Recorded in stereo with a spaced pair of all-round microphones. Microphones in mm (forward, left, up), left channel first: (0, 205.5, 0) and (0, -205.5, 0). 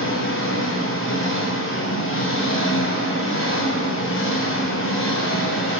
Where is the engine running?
30° left (ahead or behind), 0.8 m.